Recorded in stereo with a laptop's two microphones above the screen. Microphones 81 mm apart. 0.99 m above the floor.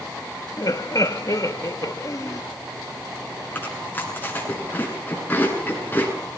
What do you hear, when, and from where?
0.6 s laughter: 45° left (ahead or behind), 1.5 m
3.5 s chewing: 20° left (ahead or behind), 8 m